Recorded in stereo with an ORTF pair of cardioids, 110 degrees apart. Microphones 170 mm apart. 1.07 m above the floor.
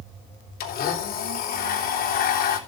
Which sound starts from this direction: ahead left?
A blender, at 0.6 s.